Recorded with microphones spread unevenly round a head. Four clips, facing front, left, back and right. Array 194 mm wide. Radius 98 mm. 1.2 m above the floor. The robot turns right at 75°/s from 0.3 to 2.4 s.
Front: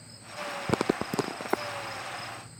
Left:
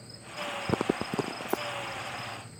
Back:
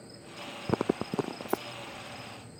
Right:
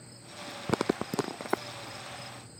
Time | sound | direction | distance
1.5 | keys jangling | 150° left | 0.6 m